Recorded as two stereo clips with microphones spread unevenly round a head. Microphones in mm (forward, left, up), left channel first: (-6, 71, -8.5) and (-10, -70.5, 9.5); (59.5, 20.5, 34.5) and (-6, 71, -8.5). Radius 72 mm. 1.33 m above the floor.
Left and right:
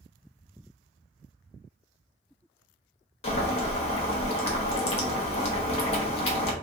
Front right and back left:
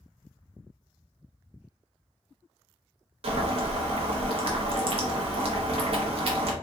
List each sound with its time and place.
3.2 s boiling: 125° left, 0.8 m